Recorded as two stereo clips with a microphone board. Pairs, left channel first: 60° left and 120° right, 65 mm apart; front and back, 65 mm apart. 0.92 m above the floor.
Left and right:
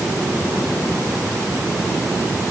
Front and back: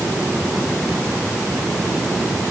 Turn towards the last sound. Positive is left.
No sound to turn to.